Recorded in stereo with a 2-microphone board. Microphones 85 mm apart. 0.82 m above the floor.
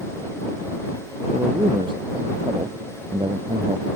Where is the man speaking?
75° right (ahead or behind).